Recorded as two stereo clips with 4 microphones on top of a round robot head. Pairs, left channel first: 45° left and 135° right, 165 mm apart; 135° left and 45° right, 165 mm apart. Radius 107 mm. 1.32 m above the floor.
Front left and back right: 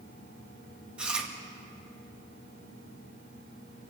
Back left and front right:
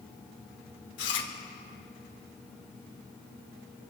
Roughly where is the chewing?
Behind left.